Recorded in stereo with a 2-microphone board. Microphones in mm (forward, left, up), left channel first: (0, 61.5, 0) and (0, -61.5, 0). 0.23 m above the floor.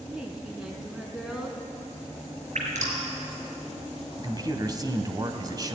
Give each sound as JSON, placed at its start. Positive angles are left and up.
{"t": 0.1, "sound": "a woman speaking", "side_deg": -5, "distance_m": 2.5}
{"t": 2.5, "sound": "dripping", "side_deg": -70, "distance_m": 4.5}
{"t": 4.2, "sound": "a man speaking", "side_deg": -35, "distance_m": 1.7}